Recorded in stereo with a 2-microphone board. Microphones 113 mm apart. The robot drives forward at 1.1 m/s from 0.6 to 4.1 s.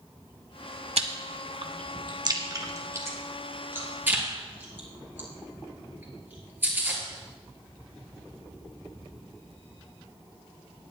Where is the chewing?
75° right (ahead or behind), 1.1 m; by 7.0 s 20° right (ahead or behind), 3.5 m.